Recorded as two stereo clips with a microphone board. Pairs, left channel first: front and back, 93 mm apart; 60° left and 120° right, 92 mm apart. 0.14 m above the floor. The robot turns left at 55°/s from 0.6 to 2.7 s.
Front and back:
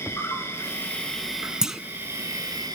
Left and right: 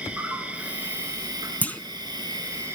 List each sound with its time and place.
0.0 s an insect: 50° right, 2 m; by 2.8 s 165° right, 2 m
1.6 s a clunk: 110° left, 0.5 m; by 1.8 s 95° left, 0.5 m